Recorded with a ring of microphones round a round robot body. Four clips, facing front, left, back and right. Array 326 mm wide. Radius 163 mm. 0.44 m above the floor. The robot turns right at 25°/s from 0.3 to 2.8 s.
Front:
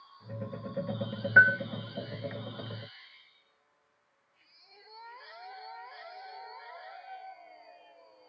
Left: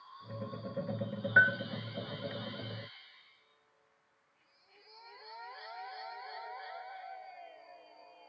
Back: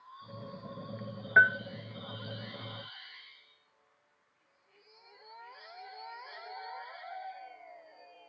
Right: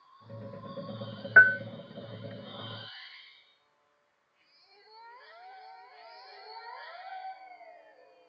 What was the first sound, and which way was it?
A bell, 95° right.